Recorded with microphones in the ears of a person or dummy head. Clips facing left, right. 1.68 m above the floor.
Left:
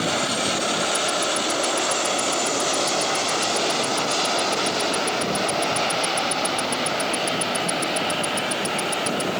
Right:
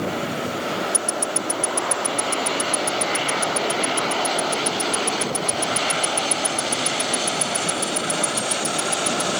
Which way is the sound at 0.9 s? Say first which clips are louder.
Left 2 dB; 30° right (ahead or behind).